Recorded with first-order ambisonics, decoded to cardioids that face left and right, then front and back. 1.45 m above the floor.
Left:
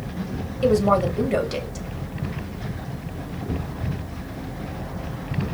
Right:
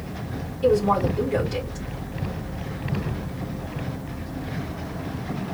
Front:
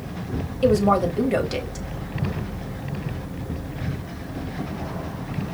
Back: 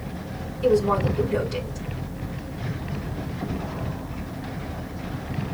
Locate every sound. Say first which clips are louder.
0.6 s a woman speaking: left 1 dB, front 2 dB; 35° left, 1.7 m